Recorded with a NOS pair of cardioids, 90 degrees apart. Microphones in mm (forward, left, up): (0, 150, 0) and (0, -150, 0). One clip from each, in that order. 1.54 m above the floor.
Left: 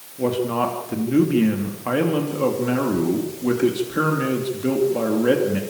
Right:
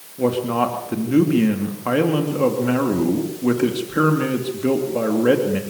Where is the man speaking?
15° right, 3 m.